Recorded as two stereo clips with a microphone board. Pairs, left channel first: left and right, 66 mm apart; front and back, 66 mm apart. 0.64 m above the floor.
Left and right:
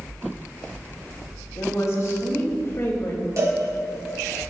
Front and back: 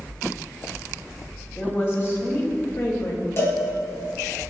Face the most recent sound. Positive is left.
turn(degrees=-50)